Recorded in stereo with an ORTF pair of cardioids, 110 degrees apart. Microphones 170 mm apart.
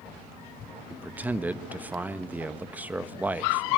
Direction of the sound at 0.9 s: 10° right.